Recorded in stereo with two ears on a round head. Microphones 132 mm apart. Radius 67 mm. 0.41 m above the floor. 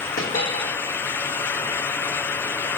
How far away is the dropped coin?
About 3 m.